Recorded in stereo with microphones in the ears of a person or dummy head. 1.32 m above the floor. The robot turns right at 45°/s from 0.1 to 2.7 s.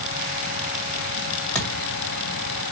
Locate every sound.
1.6 s a thud: 10° left (ahead or behind), 1.9 m; by 1.9 s 20° left (ahead or behind), 1.9 m